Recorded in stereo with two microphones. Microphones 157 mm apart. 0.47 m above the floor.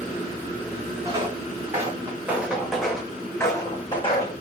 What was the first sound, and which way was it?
Footsteps, 30° right (ahead or behind).